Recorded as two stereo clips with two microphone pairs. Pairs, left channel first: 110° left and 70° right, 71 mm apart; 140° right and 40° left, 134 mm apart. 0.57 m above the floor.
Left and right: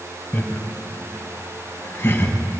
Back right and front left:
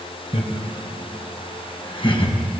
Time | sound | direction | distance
0.3 | laughter | 175° left | 3.5 m